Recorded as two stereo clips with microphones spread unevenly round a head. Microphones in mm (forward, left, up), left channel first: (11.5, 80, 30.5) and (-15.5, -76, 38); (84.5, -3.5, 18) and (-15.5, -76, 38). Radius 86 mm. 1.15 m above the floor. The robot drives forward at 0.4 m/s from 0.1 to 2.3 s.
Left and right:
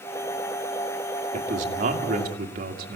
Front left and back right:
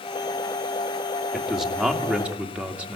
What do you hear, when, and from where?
1.3 s a man speaking: 55° right, 2.5 m; by 3.0 s 65° right, 2.5 m